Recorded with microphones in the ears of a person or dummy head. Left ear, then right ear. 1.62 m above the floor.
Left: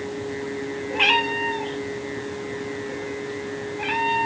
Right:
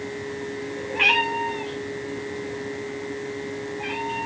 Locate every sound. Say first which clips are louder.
0.9 s a cat meowing: even; 5° right (ahead or behind), 1.2 m; by 4.3 s 45° left (ahead or behind), 2.5 m